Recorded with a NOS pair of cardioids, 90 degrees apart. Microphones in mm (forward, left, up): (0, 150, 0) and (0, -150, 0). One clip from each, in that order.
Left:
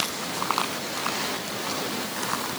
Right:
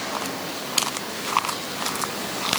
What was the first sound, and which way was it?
Only background noise.